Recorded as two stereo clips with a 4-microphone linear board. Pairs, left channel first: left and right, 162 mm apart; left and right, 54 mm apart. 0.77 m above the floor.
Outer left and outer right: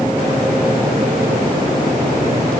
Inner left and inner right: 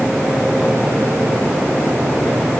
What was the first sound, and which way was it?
Only background noise.